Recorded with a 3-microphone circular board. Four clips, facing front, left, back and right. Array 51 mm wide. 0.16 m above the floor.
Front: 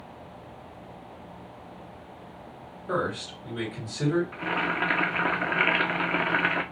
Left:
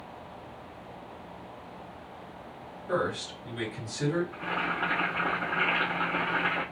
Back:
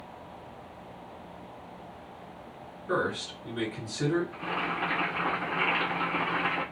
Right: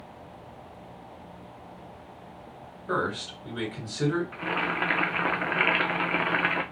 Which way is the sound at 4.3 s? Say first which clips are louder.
Right 2 dB, front 4 dB; 50° right.